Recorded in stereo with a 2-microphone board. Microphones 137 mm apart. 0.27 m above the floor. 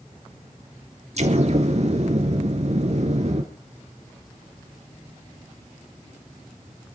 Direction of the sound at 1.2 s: 50° right (ahead or behind).